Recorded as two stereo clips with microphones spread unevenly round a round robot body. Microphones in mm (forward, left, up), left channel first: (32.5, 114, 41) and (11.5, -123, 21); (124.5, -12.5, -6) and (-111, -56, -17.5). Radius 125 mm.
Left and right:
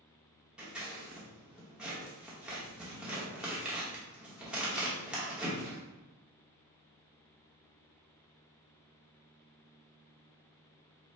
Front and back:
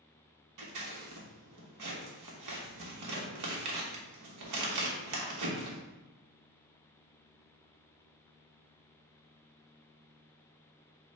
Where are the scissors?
Straight behind, 1.1 m.